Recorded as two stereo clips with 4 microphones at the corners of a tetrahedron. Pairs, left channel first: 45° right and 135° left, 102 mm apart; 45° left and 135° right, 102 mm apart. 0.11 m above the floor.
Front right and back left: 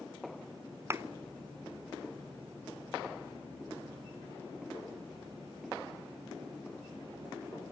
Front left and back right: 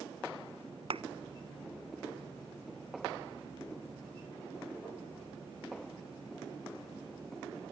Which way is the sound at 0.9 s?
160° right.